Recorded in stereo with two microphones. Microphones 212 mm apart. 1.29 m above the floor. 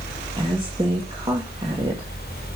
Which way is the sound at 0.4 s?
25° right (ahead or behind).